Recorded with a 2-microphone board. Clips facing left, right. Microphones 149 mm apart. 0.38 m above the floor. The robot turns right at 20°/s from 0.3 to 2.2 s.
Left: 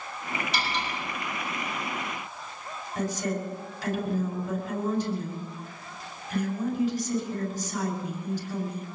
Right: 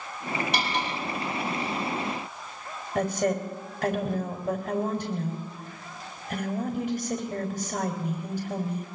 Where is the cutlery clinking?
70° right (ahead or behind), 6 m; by 0.9 s 65° right (ahead or behind), 6 m.